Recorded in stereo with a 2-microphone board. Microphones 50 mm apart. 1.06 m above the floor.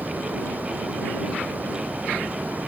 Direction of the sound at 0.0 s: 35° right (ahead or behind).